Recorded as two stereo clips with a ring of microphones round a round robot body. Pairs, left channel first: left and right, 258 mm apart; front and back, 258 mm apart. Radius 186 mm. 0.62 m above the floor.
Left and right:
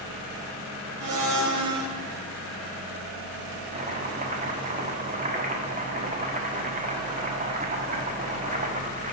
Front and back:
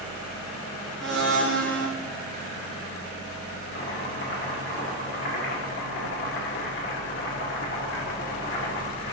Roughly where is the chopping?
Ahead right.